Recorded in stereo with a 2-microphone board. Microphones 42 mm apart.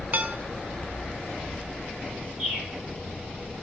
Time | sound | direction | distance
0.1 | dishes clattering | 40° right (ahead or behind) | 0.7 m
2.4 | a bird | 10° right (ahead or behind) | 4 m